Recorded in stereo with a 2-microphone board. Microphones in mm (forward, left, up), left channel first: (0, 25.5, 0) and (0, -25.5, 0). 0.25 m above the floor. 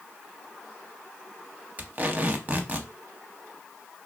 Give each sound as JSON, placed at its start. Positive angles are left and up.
{"t": 1.8, "sound": "tape being pulled", "side_deg": -30, "distance_m": 0.6}